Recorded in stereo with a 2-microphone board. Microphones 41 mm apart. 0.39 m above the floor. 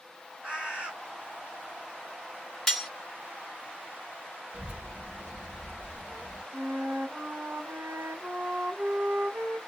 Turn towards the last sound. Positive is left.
turn(degrees=-60)  # may be behind; listen again after turning